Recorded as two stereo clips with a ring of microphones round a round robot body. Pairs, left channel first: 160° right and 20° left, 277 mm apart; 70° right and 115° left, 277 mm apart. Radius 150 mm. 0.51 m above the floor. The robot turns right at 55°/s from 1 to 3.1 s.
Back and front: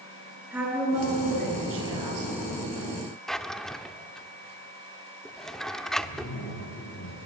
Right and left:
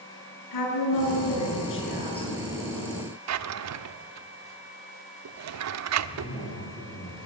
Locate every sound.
0.5 s a woman speaking: 60° right, 7 m; by 2.3 s 10° left, 7 m
3.3 s a drawer: 115° left, 0.8 m
6.0 s a zipper: 120° right, 8 m